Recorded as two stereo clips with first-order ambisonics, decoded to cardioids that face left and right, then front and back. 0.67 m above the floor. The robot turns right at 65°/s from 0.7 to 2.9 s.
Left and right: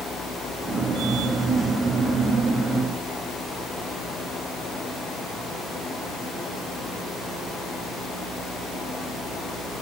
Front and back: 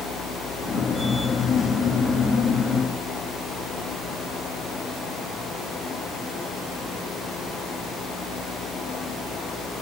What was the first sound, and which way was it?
Only background noise.